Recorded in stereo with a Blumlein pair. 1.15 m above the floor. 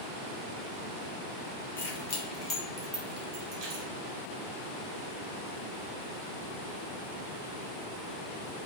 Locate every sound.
1.8 s keys jangling: 60° left, 0.7 m; by 3.9 s 45° right, 0.9 m